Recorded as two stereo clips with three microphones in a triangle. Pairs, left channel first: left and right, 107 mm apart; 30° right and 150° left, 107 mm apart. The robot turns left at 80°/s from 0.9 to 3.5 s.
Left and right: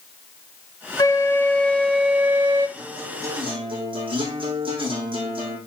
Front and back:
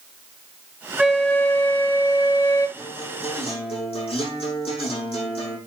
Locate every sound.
1.0 s a flute: 80° left, 1.1 m; by 2.7 s 50° right, 1.1 m
2.8 s a guitar: 5° left, 4.5 m; by 5.6 s 55° right, 4.5 m